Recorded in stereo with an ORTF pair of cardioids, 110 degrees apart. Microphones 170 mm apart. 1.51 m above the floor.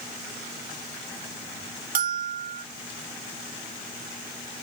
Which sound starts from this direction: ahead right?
A bell, at 1.9 s.